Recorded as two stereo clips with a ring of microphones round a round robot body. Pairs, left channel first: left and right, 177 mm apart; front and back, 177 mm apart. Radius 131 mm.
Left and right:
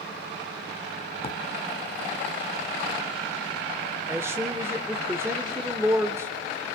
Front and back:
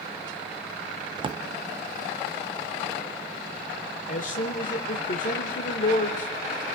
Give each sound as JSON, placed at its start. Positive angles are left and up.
{"t": 1.2, "sound": "a drawer", "azimuth_deg": 130, "distance_m": 0.6}
{"t": 4.1, "sound": "a man speaking", "azimuth_deg": -20, "distance_m": 1.1}